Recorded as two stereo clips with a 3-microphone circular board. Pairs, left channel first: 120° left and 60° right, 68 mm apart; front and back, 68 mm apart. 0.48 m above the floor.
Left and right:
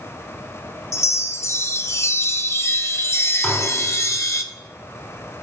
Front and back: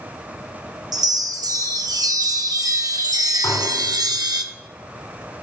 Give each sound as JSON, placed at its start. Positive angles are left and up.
{"t": 0.9, "sound": "a chime", "azimuth_deg": 165, "distance_m": 0.6}
{"t": 3.4, "sound": "dishes clattering", "azimuth_deg": 35, "distance_m": 2.5}